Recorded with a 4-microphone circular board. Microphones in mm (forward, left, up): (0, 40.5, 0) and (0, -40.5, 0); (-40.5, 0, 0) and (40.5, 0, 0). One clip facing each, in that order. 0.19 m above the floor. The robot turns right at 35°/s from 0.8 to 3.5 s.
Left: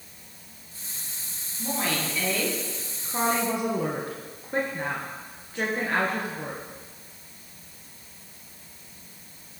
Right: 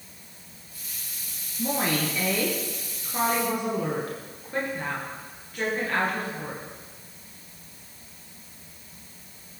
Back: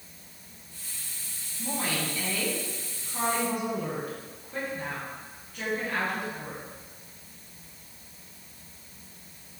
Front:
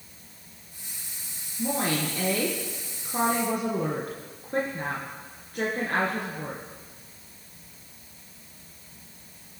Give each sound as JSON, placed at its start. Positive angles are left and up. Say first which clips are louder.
{"t": 1.6, "sound": "a woman speaking", "louder": "right 3 dB, front 5 dB", "azimuth_deg": -35, "distance_m": 3.0}